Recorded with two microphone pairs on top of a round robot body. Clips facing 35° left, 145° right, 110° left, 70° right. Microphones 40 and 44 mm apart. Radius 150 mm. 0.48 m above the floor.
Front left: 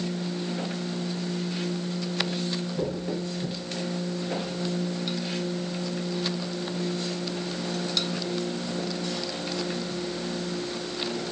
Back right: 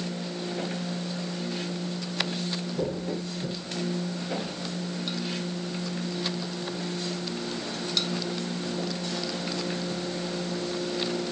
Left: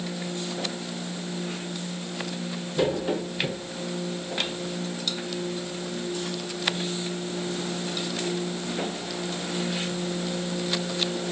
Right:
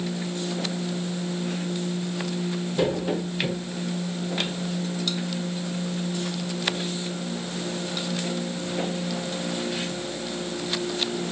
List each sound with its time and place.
Only background noise.